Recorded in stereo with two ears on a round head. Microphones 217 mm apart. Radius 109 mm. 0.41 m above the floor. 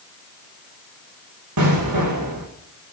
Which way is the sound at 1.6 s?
85° right.